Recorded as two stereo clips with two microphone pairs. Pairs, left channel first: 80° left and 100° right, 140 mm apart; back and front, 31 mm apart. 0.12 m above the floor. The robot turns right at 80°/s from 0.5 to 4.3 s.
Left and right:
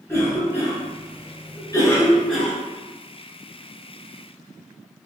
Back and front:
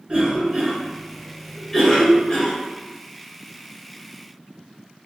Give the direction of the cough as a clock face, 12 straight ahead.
11 o'clock.